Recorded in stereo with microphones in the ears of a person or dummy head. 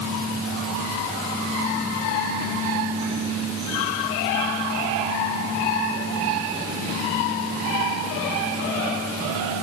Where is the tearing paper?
I don't hear tearing paper.